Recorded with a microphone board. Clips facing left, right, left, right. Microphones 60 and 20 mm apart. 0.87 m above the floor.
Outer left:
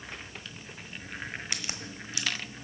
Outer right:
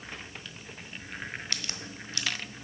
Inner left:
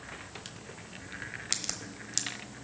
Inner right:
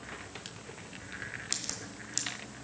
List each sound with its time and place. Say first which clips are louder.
1.5 s a crack: outer left 1 dB, inner left 6 dB; 20° left (ahead or behind), 1.1 m